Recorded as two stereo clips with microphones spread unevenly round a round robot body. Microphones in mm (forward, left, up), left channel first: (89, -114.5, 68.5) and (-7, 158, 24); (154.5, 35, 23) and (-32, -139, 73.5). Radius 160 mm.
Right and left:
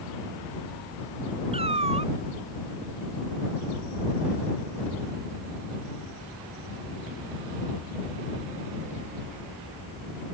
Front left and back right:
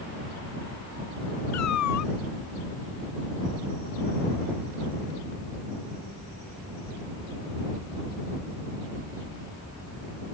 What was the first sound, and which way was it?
A cat meowing, 40° left.